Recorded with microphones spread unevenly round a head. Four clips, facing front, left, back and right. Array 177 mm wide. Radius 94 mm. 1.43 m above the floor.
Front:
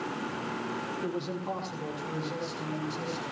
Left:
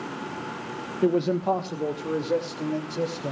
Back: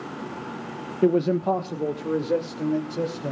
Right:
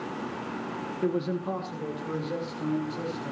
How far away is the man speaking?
About 0.9 m.